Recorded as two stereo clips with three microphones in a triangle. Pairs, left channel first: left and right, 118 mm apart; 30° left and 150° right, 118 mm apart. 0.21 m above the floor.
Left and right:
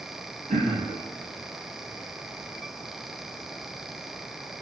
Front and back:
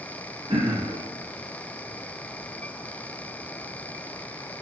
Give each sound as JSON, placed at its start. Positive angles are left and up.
{"t": 0.5, "sound": "throat clearing", "azimuth_deg": -105, "distance_m": 2.5}